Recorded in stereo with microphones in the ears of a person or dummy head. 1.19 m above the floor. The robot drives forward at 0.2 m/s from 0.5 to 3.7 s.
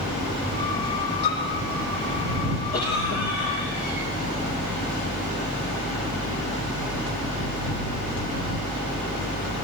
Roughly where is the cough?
Left.